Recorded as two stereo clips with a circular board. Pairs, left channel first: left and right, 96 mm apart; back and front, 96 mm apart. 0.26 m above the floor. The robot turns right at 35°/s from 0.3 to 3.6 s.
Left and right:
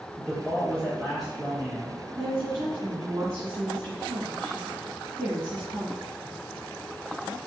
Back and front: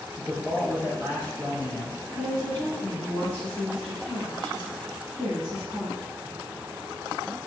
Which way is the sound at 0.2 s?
150° left.